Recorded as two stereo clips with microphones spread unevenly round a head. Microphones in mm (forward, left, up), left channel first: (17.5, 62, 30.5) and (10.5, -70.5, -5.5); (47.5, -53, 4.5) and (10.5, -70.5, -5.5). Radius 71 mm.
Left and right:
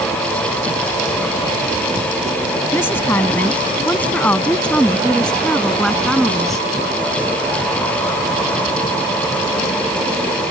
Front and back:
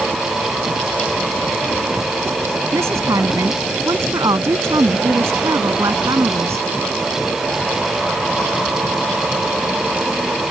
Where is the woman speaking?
160° left; by 6.7 s 175° left.